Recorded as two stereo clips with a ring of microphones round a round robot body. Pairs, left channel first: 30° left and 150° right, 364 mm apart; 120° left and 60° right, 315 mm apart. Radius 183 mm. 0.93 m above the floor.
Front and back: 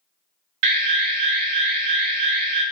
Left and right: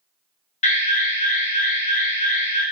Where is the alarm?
175° right, 0.6 m.